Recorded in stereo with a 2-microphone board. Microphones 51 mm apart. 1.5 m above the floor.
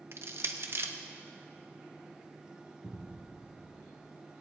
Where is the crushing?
55° right (ahead or behind), 1.1 m.